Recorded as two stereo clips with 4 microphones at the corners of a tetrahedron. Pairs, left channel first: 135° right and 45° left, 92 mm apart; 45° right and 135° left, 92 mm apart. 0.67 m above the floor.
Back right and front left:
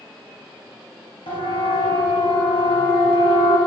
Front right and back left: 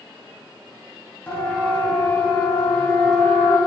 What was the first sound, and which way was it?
A siren, 115° right.